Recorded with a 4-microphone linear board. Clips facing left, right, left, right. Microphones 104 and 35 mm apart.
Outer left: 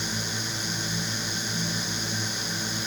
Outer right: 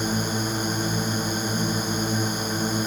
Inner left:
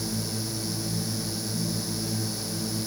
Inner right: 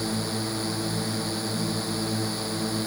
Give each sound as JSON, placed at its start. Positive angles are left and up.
{"t": 0.0, "sound": "a drone", "side_deg": -45}